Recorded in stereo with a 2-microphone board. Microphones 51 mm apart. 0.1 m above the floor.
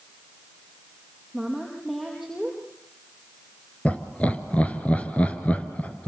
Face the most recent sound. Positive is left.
turn(degrees=25)  # may be behind; listen again after turning